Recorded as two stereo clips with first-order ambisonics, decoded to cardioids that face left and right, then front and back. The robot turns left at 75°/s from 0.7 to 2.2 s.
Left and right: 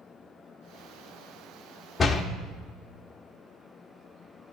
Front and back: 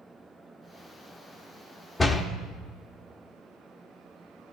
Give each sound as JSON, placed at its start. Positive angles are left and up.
{"t": 2.0, "sound": "a door slam", "azimuth_deg": 55, "distance_m": 0.6}